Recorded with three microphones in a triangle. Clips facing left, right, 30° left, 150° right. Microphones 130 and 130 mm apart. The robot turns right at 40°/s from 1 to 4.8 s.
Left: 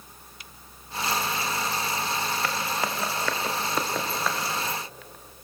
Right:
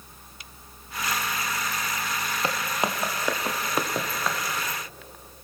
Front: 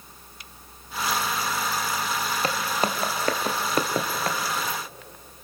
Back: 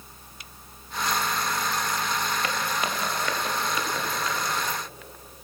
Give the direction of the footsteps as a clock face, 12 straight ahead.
1 o'clock.